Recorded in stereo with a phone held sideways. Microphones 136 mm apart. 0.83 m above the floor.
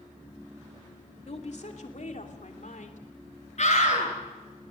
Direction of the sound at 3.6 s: 55° left (ahead or behind).